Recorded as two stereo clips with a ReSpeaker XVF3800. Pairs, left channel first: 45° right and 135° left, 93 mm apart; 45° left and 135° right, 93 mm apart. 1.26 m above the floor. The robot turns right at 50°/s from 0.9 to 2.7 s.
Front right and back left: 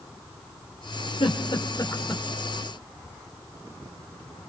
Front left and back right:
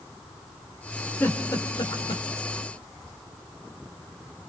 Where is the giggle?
25° right, 4.5 m; by 2.2 s 30° left, 4.5 m.